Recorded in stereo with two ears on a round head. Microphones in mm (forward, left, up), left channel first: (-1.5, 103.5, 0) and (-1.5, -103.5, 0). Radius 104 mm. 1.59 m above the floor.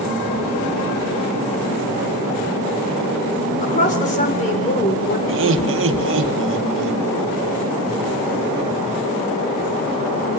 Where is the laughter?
55° right (ahead or behind), 2.5 m.